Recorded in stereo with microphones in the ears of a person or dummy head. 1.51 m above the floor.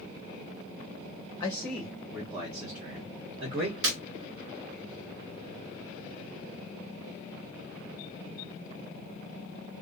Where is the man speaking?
20° left (ahead or behind), 0.6 m; by 3.7 s 60° right (ahead or behind), 1.3 m.